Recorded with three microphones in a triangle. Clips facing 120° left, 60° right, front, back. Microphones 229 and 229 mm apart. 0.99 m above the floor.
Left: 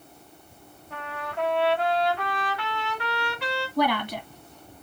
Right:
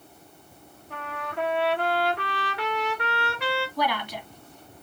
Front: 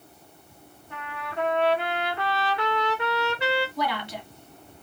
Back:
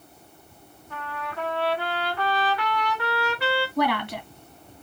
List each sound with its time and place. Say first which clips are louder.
0.9 s a trumpet: even, even; 65° right, 2 m
3.8 s a woman speaking: left 4 dB, back 5 dB; 155° left, 1.3 m